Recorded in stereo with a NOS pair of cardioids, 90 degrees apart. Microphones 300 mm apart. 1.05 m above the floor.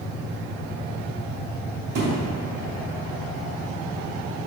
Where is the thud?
65° right, 2.5 m.